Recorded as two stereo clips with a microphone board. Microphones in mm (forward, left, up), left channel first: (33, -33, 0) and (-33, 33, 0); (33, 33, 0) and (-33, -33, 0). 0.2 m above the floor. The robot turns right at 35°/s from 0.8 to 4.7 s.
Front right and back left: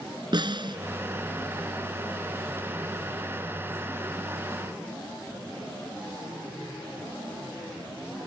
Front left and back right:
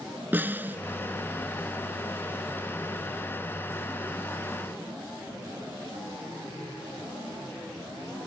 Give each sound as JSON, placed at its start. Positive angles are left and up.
{"t": 0.3, "sound": "a snare drum", "azimuth_deg": 155}